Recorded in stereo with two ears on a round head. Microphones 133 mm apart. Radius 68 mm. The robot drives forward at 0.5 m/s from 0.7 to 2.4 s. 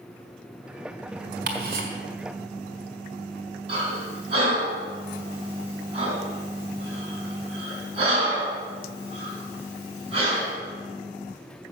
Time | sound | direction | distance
1.5 | ticking | 65° right (ahead or behind) | 1.7 m
3.7 | breathing | 40° right (ahead or behind) | 3.5 m